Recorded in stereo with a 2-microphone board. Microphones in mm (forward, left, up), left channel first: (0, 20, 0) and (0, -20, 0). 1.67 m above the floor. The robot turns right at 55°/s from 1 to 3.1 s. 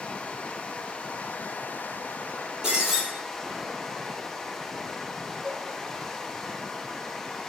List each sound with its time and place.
0.0 s running water: 50° left, 1.3 m; by 7.5 s 165° left, 1.3 m
2.6 s breaking glass: 20° right (ahead or behind), 6 m; by 3.0 s centre (ahead or behind), 6 m
5.4 s a cowbell: 65° right (ahead or behind), 3 m